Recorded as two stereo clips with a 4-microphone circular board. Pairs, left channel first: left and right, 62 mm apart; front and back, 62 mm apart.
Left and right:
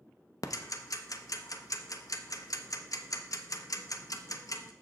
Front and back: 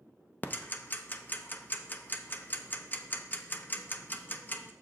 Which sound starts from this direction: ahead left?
Ticking, at 0.4 s.